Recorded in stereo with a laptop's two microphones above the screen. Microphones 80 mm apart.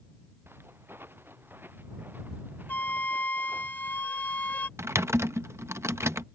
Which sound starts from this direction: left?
A flute, at 2.7 s.